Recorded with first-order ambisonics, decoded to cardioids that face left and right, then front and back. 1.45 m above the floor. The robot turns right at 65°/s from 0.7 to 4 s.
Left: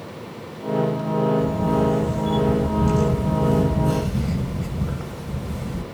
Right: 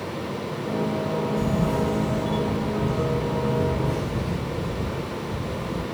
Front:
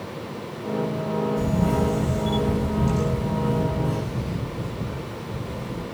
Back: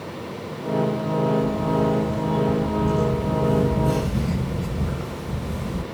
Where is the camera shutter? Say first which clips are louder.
Left 3 dB, back 2 dB; 30° right, 1.3 m; by 5.8 s 140° left, 1.3 m.